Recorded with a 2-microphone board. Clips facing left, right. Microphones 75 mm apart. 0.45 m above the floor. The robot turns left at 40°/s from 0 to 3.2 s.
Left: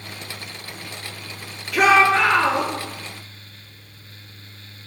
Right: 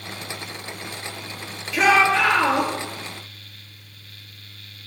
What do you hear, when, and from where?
1.7 s a shout: 60° left, 5.5 m; by 2.7 s 20° left, 5.5 m